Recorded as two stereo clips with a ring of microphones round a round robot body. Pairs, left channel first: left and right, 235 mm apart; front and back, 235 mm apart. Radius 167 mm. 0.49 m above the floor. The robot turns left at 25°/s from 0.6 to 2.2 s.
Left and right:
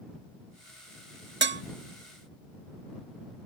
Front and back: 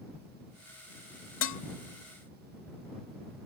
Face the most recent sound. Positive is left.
turn(degrees=-65)